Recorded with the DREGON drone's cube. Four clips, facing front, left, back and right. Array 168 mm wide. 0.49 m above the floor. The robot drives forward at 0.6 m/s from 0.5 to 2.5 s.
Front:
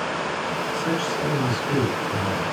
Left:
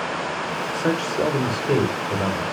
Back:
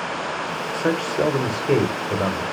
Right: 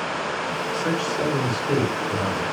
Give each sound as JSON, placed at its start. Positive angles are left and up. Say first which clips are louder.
{"t": 0.7, "sound": "a man speaking", "louder": "left 3 dB, back 6 dB", "azimuth_deg": 150, "distance_m": 2.0}